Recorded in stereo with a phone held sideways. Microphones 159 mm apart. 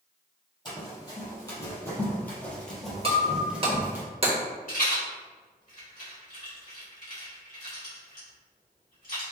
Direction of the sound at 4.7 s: 60° left (ahead or behind).